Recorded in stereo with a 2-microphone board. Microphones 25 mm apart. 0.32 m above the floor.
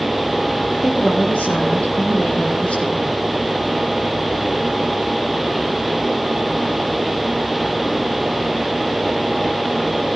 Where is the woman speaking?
50° left (ahead or behind), 9.5 m; by 3.1 s 45° left (ahead or behind), 12 m.